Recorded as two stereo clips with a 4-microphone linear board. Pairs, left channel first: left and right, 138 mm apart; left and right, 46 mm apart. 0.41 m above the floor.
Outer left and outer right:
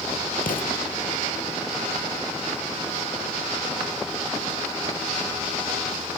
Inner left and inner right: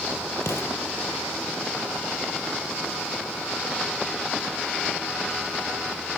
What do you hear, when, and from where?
0.4 s an explosion: 90° left, 3.5 m